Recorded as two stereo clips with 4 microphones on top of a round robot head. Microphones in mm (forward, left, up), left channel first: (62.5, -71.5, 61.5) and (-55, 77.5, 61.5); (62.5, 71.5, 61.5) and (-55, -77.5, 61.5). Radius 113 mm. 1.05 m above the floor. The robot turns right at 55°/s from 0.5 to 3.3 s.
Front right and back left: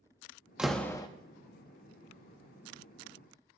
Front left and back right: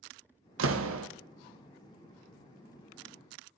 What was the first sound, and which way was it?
A door slam, 145° right.